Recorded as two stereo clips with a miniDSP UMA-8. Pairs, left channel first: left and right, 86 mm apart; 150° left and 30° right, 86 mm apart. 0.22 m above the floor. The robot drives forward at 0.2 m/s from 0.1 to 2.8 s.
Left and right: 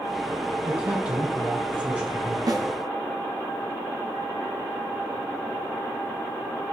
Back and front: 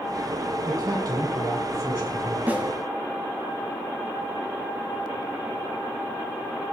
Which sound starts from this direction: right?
A snare drum, at 2.5 s.